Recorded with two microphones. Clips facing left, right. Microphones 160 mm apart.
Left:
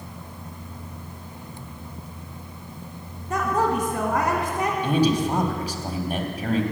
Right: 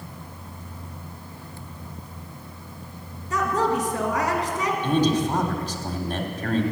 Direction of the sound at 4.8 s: 10° left (ahead or behind).